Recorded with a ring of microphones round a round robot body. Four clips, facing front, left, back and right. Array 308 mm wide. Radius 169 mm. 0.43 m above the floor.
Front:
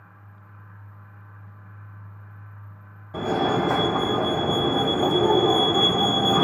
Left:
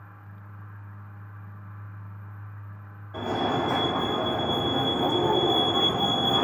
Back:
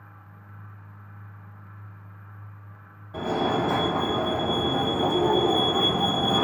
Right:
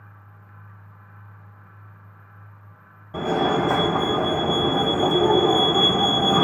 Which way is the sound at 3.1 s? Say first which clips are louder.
Right 5 dB, front 2 dB; 50° right.